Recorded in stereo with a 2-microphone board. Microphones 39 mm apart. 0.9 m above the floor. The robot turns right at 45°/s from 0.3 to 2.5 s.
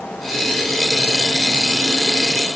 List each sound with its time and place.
Only background noise.